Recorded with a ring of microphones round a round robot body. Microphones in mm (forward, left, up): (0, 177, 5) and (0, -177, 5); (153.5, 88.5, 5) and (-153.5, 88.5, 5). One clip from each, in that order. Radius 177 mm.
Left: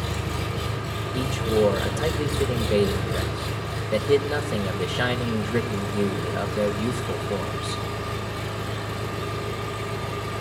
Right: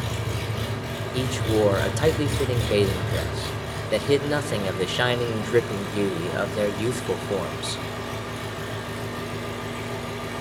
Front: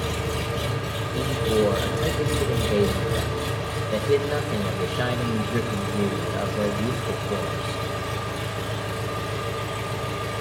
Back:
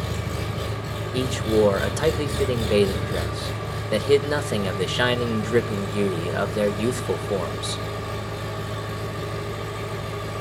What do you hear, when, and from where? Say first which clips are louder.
0.0 s an engine running: left 1 dB, front 3 dB; 25° right, 9 m
1.1 s a man speaking: even, back 2 dB; 150° right, 1.1 m